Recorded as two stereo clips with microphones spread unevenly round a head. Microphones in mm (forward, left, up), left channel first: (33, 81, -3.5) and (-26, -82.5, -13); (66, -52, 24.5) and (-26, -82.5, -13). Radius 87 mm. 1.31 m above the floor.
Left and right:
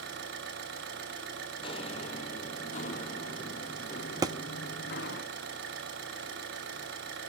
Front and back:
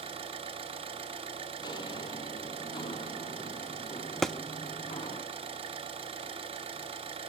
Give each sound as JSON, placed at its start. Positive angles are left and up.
{"t": 0.0, "sound": "an engine running", "azimuth_deg": -135, "distance_m": 6.5}
{"t": 1.6, "sound": "footsteps", "azimuth_deg": 15, "distance_m": 2.5}
{"t": 4.2, "sound": "a thud", "azimuth_deg": -45, "distance_m": 1.1}